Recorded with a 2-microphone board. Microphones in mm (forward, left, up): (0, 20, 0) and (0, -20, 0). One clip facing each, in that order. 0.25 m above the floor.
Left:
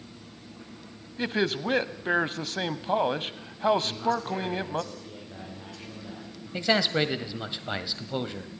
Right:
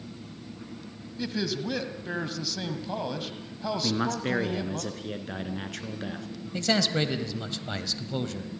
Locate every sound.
1.2 s a man speaking: 40° left (ahead or behind), 1.2 m
3.8 s a man speaking: 70° right (ahead or behind), 3 m
6.5 s a man speaking: 20° left (ahead or behind), 1.3 m